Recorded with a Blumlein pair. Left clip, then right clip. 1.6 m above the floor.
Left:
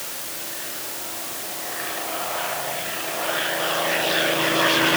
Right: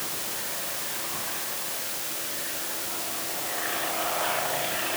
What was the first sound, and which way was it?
Only background noise.